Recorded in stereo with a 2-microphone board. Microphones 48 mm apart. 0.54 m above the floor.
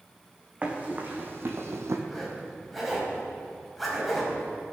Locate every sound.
0.6 s running footsteps: 25° right (ahead or behind), 2.5 m; by 2.0 s 70° right (ahead or behind), 1.6 m
2.1 s a zipper: centre (ahead or behind), 3.5 m